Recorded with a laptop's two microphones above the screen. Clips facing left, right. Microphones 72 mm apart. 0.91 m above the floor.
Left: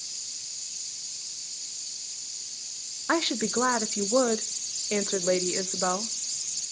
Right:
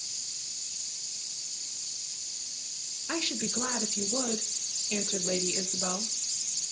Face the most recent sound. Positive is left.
turn(degrees=55)  # may be behind; listen again after turning